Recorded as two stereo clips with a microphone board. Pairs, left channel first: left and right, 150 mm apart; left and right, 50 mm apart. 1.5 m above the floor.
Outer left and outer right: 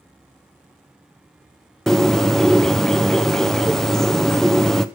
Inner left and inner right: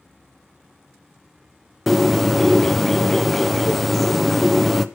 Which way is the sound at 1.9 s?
Centre (ahead or behind).